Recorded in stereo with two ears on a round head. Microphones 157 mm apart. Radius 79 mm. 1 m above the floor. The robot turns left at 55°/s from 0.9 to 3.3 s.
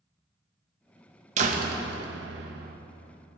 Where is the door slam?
40° right, 0.8 m; by 2.8 s 120° right, 0.8 m.